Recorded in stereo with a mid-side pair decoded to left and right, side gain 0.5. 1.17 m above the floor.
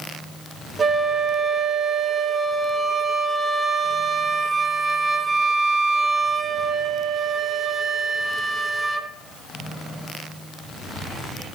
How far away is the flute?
About 0.7 m.